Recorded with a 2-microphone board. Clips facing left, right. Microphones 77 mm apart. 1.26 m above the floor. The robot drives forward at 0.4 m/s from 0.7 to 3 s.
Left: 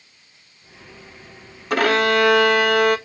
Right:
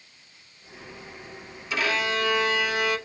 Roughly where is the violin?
Left.